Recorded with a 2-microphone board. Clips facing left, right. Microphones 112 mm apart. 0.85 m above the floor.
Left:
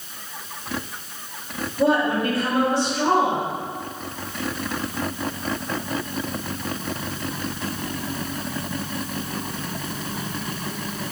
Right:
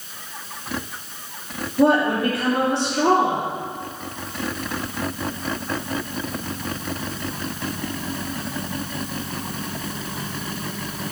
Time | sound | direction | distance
1.8 | a woman speaking | 70° right (ahead or behind) | 2.5 m